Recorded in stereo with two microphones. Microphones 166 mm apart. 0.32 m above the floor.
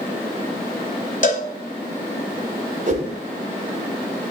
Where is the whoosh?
50° right (ahead or behind), 1.2 m.